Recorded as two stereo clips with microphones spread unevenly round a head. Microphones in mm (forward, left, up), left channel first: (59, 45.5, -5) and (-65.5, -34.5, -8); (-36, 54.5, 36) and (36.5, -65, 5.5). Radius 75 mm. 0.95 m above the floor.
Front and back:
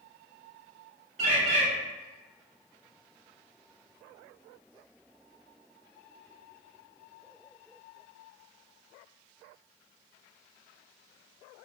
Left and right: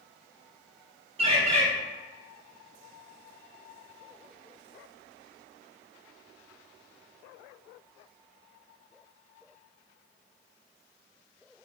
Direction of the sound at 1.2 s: 105° right.